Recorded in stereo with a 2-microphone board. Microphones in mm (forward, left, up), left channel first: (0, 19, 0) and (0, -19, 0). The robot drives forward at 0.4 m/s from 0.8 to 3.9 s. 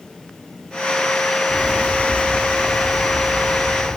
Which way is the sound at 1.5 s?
45° right (ahead or behind).